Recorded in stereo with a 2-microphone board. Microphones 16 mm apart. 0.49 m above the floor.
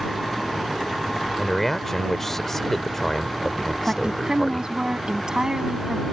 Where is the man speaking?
20° left (ahead or behind).